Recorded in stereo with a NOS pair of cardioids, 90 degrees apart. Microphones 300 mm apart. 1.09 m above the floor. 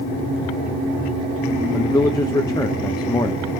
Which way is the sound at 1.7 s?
15° left.